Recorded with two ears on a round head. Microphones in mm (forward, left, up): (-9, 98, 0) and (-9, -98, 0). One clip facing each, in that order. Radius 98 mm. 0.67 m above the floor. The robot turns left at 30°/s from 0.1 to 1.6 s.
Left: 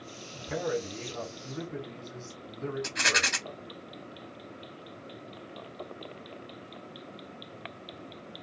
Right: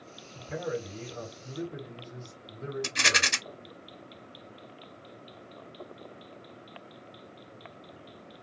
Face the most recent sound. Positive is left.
turn(degrees=-40)  # may be behind; listen again after turning